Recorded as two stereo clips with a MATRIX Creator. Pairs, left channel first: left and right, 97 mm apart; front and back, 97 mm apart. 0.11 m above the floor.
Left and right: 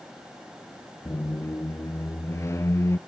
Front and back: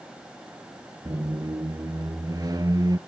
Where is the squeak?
145° left, 0.6 m.